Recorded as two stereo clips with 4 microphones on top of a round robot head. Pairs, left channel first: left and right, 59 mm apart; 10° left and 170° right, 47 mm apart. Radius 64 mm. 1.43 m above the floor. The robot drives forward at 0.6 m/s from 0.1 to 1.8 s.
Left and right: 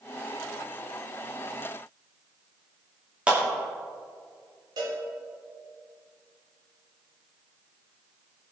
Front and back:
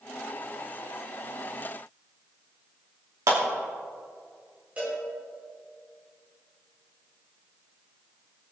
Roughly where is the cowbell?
Right.